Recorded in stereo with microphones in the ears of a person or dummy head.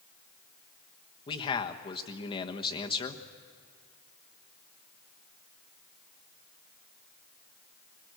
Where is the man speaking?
25° left (ahead or behind), 1.2 m.